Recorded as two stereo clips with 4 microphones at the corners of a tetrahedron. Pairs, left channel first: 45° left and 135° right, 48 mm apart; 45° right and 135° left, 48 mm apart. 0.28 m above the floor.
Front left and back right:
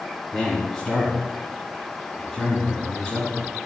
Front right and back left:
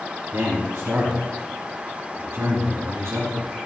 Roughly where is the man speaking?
Behind left.